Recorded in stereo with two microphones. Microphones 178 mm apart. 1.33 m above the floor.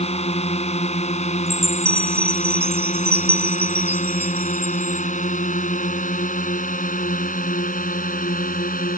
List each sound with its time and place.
0.0 s a drone: 40° left (ahead or behind); by 9.0 s 55° left (ahead or behind)
1.5 s a chime: 35° right (ahead or behind)